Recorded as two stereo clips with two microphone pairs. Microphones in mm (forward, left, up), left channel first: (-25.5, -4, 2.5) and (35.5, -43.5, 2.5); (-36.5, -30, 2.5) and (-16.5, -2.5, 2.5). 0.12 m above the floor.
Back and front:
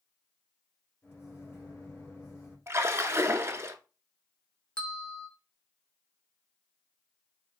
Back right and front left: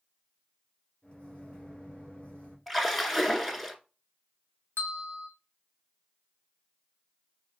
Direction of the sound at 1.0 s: 170° right.